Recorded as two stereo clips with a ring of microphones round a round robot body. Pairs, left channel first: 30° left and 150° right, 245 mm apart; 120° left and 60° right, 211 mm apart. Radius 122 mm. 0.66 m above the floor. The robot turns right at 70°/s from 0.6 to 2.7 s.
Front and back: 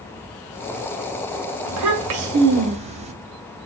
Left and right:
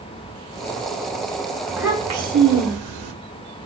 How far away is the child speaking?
About 0.8 m.